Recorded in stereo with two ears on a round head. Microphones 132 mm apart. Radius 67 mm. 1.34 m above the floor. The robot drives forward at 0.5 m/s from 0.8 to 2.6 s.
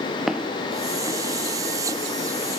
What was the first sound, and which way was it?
Footsteps, 5° right (ahead or behind).